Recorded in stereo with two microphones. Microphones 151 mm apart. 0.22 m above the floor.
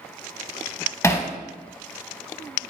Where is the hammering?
20° left (ahead or behind), 0.6 m.